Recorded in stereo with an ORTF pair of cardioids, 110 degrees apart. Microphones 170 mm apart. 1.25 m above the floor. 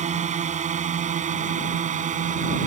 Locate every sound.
0.0 s a drone: 45° right; by 2.7 s 50° right